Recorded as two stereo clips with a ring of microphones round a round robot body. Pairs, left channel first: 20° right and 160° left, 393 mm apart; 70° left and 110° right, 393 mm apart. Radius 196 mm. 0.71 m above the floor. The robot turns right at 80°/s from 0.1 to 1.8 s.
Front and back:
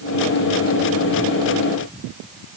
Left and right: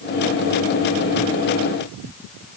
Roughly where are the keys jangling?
I don't hear keys jangling.